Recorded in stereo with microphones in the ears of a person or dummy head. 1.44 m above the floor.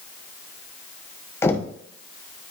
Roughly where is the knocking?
Centre.